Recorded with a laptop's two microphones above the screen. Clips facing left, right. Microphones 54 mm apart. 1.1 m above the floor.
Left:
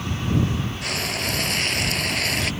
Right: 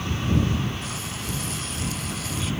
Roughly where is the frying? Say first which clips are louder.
Left 6 dB; left.